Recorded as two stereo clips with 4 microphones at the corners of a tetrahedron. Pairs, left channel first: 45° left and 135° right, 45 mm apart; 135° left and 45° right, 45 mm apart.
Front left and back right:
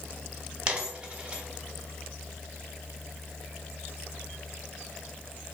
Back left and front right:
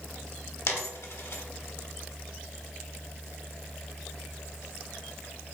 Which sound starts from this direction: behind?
A dropped coin, at 0.7 s.